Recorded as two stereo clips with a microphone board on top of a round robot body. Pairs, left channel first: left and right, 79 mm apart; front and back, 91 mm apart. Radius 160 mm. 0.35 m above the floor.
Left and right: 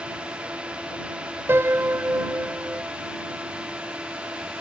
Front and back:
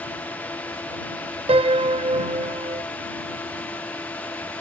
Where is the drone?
40° right.